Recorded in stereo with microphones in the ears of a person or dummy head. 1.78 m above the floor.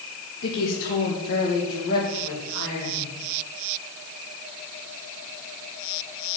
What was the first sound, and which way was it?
A woman speaking, 75° left (ahead or behind).